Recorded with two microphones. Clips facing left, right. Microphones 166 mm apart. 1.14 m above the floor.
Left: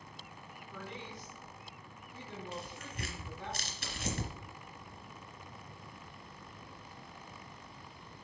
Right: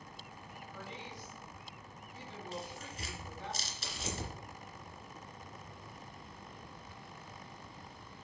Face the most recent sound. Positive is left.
turn(degrees=55)  # may be behind; listen again after turning